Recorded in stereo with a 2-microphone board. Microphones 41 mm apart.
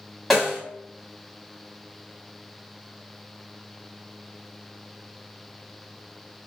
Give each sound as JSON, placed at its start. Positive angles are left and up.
{"t": 0.3, "sound": "a snare drum", "side_deg": 0, "distance_m": 1.3}